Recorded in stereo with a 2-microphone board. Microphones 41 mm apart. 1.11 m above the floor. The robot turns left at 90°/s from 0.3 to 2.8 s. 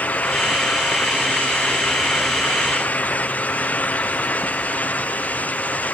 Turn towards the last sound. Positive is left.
No sound to turn to.